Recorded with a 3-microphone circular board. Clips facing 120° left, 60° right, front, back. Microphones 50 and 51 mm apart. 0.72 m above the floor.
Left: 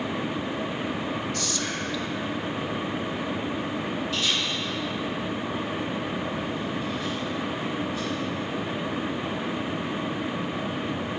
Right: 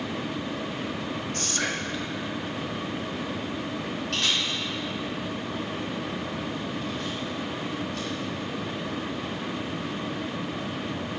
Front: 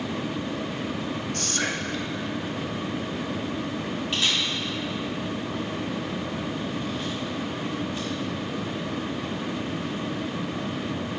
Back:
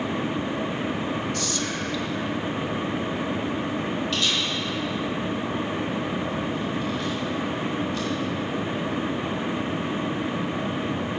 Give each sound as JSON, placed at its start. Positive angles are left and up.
{"t": 1.3, "sound": "whispering", "azimuth_deg": -25, "distance_m": 0.8}
{"t": 4.1, "sound": "a camera shutter", "azimuth_deg": -65, "distance_m": 3.5}